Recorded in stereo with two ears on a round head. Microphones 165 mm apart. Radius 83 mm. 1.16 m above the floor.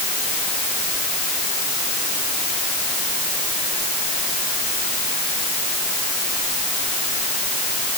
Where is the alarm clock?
I don't hear an alarm clock.